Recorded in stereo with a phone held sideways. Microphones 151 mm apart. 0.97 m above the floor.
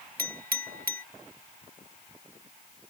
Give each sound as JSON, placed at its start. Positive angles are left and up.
{"t": 0.2, "sound": "a clink", "side_deg": -80}